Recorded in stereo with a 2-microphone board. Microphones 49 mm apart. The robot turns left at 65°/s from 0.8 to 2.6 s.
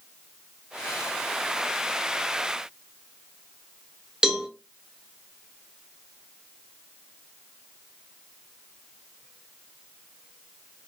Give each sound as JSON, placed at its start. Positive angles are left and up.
{"t": 4.2, "sound": "a cowbell", "side_deg": -15, "distance_m": 0.6}